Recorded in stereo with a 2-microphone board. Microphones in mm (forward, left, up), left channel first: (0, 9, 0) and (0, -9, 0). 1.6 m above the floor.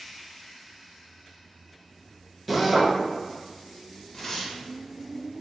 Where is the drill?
Centre (ahead or behind), 0.8 m.